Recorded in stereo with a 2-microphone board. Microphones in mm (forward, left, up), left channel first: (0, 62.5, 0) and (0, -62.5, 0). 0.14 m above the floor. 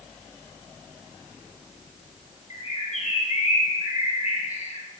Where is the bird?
70° left (ahead or behind), 2 m.